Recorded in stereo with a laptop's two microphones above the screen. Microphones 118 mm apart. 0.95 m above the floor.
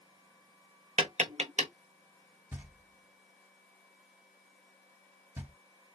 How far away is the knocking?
About 2.0 m.